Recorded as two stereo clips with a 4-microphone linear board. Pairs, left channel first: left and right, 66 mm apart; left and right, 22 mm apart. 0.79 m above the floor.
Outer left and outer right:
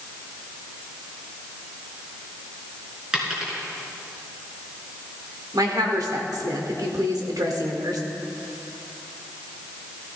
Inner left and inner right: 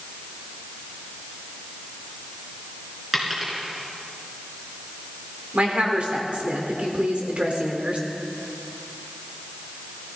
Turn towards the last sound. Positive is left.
turn(degrees=-70)  # may be behind; listen again after turning